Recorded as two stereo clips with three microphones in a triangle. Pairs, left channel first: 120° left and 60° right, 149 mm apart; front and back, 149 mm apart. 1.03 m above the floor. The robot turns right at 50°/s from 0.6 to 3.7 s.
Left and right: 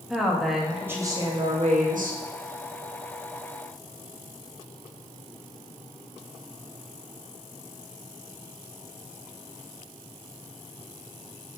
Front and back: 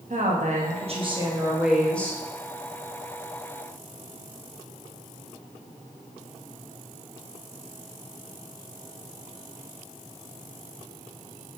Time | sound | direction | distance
0.1 | a woman speaking | 150° right | 1.3 m